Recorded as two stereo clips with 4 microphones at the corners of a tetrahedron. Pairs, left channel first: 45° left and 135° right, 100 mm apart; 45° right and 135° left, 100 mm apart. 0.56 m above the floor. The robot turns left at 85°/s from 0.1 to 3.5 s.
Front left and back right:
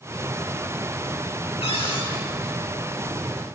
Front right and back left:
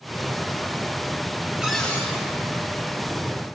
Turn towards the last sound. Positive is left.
turn(degrees=-105)